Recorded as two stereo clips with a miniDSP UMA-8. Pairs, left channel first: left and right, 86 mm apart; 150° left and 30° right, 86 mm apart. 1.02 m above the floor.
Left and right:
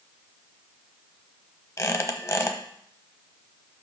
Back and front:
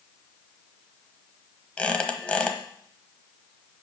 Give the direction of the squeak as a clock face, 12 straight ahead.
9 o'clock.